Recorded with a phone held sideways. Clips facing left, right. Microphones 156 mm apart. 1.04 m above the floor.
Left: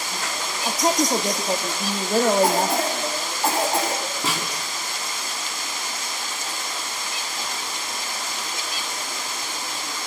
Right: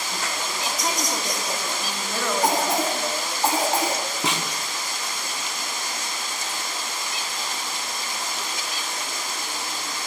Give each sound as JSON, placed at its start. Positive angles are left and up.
{"t": 0.7, "sound": "a woman speaking", "side_deg": 40, "distance_m": 1.6}
{"t": 2.4, "sound": "a cough", "side_deg": -15, "distance_m": 9.0}
{"t": 4.2, "sound": "a snare drum", "side_deg": -20, "distance_m": 3.5}